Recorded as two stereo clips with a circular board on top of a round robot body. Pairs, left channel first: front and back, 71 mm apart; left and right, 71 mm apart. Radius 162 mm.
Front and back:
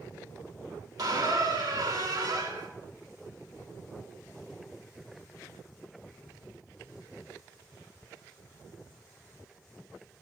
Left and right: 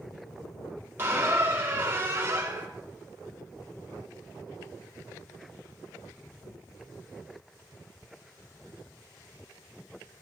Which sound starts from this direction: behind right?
A squeak, at 1.0 s.